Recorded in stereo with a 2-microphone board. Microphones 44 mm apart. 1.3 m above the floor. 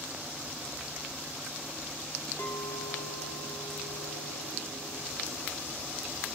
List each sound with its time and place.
2.4 s a clink: 60° left (ahead or behind), 2.0 m